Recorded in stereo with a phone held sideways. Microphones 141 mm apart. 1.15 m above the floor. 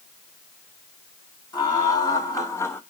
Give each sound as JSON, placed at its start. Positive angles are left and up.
{"t": 1.5, "sound": "laughter", "side_deg": 30, "distance_m": 2.5}